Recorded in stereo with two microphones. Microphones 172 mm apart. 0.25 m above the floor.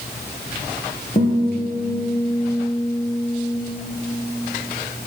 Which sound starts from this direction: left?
A guitar, at 1.1 s.